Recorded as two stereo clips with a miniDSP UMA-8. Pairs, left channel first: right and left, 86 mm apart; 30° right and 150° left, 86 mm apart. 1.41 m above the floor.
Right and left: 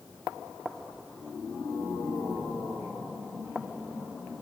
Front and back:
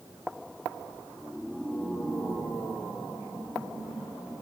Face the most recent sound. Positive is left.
No sound to turn to.